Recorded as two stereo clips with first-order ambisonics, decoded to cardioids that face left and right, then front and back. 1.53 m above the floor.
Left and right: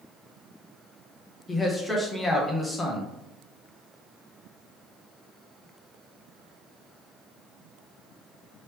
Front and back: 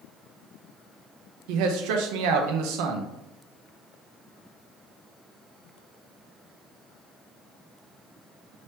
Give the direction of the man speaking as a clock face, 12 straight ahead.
6 o'clock.